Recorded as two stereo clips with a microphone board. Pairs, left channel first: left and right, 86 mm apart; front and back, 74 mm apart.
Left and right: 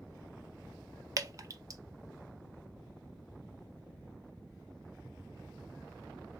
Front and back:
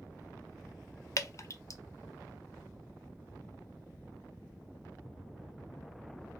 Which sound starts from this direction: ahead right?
Dripping, at 1.2 s.